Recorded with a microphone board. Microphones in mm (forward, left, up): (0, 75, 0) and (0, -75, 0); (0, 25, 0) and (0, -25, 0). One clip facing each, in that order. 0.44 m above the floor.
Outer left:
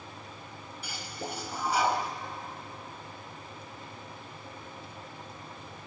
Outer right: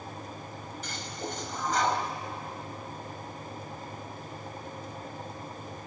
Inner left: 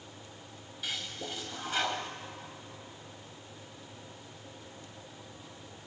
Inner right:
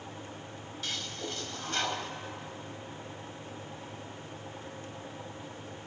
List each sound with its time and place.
0.8 s a toilet flushing: 10° left (ahead or behind), 1.4 m